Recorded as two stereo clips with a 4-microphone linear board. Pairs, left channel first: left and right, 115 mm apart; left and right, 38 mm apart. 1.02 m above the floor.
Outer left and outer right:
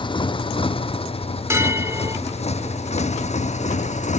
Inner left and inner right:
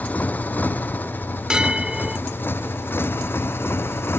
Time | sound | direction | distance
0.0 | a motorcycle | 45° left (ahead or behind) | ?
1.5 | a bell | 25° right (ahead or behind) | ?